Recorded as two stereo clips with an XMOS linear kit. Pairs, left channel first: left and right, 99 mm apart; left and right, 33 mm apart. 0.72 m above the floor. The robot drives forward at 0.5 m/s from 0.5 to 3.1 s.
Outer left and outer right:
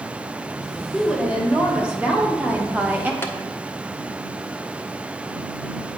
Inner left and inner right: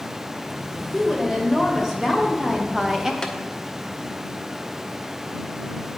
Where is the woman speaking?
10° right (ahead or behind), 1.7 m; by 3.1 s 20° right (ahead or behind), 0.8 m.